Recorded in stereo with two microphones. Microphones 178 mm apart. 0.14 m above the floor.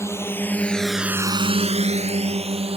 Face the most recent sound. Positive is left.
turn(degrees=-35)  # may be behind; listen again after turning